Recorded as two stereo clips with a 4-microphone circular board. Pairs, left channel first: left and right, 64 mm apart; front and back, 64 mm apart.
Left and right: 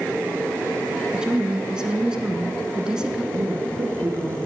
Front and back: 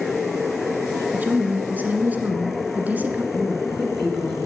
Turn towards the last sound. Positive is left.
turn(degrees=-90)